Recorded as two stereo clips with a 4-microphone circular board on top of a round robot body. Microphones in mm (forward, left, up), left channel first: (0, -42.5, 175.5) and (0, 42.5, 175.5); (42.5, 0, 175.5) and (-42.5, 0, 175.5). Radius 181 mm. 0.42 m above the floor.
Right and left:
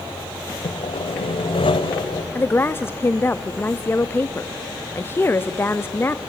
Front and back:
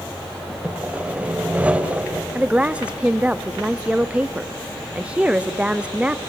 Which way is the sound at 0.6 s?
105° right.